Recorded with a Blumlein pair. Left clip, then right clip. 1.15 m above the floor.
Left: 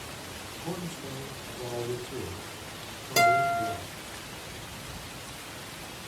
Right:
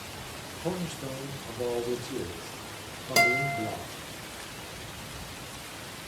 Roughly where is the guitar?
Right.